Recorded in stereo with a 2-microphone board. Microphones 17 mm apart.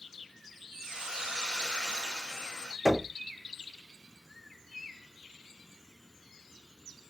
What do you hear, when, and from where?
0.8 s a hiss: 70° right (ahead or behind), 2 m
2.9 s knocking: 5° right (ahead or behind), 1.1 m